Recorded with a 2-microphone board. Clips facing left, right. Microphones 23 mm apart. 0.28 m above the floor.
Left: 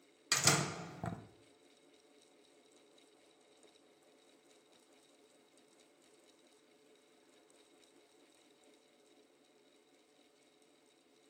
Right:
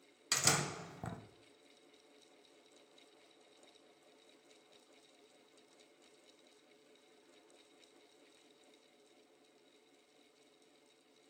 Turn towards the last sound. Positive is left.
turn(degrees=10)  # may be behind; listen again after turning